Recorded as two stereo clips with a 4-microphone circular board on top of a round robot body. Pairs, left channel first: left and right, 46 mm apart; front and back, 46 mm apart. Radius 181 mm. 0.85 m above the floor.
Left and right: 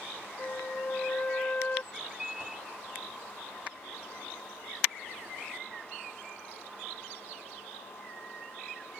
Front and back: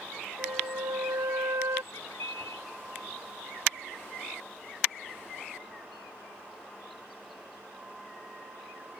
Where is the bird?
10° right.